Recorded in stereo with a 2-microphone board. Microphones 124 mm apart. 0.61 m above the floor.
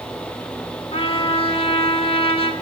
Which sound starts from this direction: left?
A trumpet, at 0.9 s.